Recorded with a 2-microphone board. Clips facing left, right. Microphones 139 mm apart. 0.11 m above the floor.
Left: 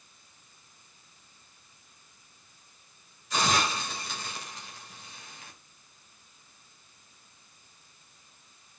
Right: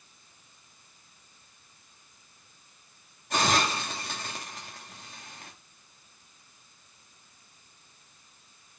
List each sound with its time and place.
3.3 s a hiss: 50° right (ahead or behind), 2.5 m